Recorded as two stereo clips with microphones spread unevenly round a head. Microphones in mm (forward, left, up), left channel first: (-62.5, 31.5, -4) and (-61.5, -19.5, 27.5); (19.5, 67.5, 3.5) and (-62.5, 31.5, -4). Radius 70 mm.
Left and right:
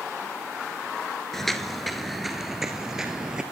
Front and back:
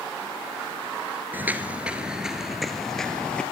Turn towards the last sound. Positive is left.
turn(degrees=-50)